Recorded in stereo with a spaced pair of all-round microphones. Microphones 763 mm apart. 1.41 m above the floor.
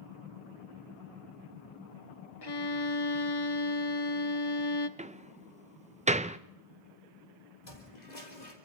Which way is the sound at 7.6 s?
65° left (ahead or behind).